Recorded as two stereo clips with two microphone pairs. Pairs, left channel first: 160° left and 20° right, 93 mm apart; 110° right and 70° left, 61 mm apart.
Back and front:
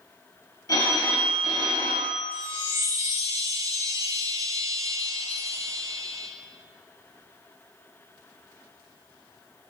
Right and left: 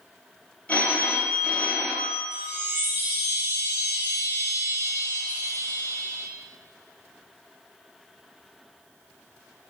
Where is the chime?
25° left, 0.5 m.